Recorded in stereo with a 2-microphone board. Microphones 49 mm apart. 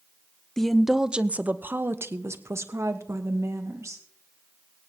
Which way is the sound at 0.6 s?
10° left (ahead or behind).